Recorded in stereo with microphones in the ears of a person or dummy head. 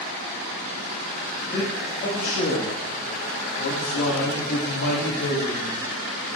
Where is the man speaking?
25° left (ahead or behind), 1.8 m; by 5.8 s 70° left (ahead or behind), 2 m.